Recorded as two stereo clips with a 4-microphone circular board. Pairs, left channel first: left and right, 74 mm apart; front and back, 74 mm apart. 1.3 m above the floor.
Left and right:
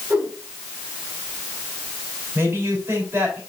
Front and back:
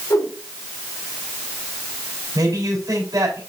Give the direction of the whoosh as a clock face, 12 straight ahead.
1 o'clock.